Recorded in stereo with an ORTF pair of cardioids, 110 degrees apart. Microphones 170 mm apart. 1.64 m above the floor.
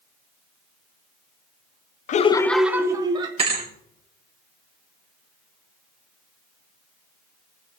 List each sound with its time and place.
2.1 s laughter: 50° left, 0.6 m; by 3.3 s 30° right, 1.5 m
3.4 s a thud: 35° right, 3 m